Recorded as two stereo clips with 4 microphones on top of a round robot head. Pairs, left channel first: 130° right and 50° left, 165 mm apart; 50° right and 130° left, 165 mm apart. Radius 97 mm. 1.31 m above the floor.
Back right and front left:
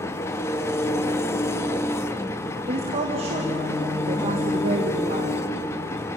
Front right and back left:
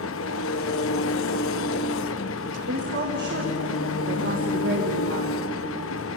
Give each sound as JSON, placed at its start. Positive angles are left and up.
{"t": 0.0, "sound": "an engine running", "azimuth_deg": -55, "distance_m": 1.0}
{"t": 2.7, "sound": "a woman speaking", "azimuth_deg": 105, "distance_m": 2.5}